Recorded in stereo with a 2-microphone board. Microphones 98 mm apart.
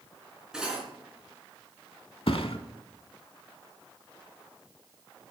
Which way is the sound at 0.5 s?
5° right (ahead or behind).